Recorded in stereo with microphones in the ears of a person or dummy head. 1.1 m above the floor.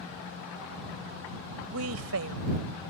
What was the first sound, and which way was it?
A woman speaking, 85° right.